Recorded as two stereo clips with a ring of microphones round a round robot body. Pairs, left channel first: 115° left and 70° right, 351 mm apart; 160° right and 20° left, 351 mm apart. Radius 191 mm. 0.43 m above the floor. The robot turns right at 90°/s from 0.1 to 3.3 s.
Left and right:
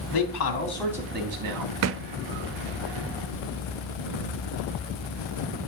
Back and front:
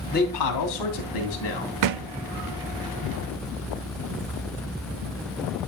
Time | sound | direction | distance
0.1 | a man speaking | 135° left | 3 m
1.8 | a thud | 20° right | 0.6 m